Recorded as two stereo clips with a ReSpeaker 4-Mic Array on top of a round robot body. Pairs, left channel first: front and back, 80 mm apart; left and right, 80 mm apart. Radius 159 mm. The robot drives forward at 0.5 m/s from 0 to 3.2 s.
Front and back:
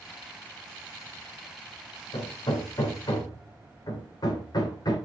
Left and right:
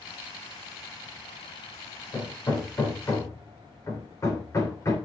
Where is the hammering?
30° left, 3.5 m; by 5.0 s 35° left, 3 m.